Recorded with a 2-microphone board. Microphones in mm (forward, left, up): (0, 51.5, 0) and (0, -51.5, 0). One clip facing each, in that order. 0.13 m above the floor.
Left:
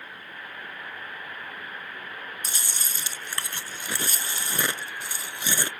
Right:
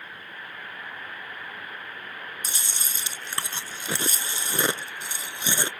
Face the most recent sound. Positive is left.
turn(degrees=-20)  # may be behind; listen again after turning